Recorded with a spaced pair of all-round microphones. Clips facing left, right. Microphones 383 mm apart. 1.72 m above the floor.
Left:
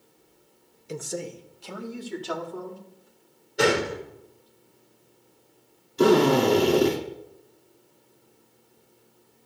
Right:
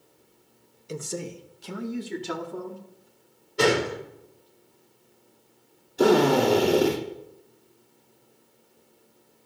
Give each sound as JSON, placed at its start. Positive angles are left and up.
{"t": 0.9, "sound": "a man speaking", "side_deg": 0, "distance_m": 1.0}
{"t": 3.6, "sound": "a gunshot", "side_deg": -15, "distance_m": 4.0}
{"t": 6.0, "sound": "a drill", "side_deg": 10, "distance_m": 3.0}